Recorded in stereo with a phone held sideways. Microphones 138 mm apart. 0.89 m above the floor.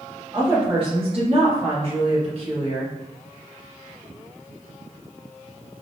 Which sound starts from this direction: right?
A woman speaking, at 0.3 s.